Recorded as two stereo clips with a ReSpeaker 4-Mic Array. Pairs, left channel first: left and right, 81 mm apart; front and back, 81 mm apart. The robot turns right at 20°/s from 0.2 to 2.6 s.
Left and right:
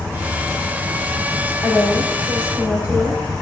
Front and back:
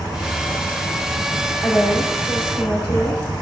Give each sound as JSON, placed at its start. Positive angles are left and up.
{"t": 0.0, "sound": "an insect", "azimuth_deg": -35, "distance_m": 1.4}
{"t": 1.6, "sound": "a woman speaking", "azimuth_deg": -35, "distance_m": 6.0}